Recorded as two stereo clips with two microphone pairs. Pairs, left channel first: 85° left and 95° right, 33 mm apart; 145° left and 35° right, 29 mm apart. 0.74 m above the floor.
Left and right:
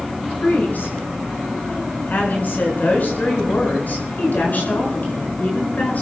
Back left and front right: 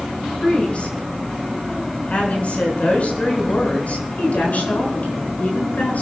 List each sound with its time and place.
0.4 s a woman speaking: 95° left, 7.5 m; by 6.0 s 115° left, 9.5 m